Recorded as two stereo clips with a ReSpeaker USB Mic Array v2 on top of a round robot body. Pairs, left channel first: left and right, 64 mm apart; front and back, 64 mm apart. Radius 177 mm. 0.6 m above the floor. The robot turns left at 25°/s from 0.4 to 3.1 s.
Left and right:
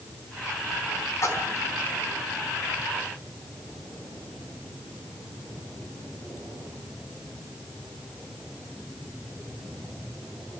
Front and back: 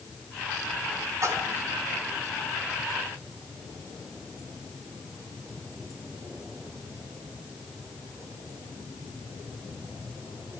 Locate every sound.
1.2 s a splash: 140° left, 4 m; by 1.7 s 125° left, 4 m